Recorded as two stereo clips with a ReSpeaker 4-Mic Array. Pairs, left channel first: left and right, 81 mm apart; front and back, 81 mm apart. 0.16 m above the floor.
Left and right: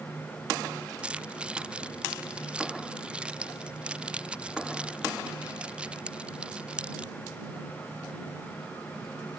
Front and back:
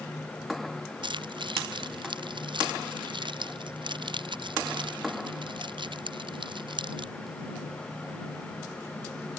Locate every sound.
1.0 s keys jangling: 165° right